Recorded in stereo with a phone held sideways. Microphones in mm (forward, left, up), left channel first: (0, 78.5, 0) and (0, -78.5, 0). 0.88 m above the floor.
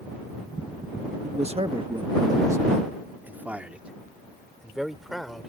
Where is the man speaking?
45° right (ahead or behind); by 5.5 s centre (ahead or behind).